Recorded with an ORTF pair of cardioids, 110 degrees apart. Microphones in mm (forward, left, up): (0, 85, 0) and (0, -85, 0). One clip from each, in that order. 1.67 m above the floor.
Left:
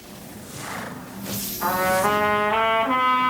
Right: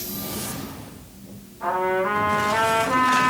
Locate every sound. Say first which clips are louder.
1.6 s a trumpet: left 2 dB; 70° left, 2.5 m